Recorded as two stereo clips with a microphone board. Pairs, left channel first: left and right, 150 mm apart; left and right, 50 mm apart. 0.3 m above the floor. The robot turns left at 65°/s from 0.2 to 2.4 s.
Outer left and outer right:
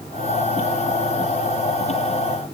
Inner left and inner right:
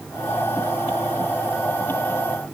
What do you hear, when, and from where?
Only background noise.